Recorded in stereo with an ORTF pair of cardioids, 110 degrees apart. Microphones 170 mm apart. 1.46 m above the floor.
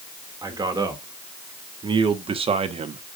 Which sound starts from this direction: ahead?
A man speaking, at 0.4 s.